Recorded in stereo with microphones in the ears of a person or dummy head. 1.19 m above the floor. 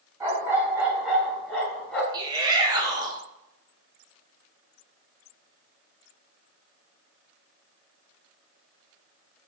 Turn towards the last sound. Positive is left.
turn(degrees=-20)  # may be behind; listen again after turning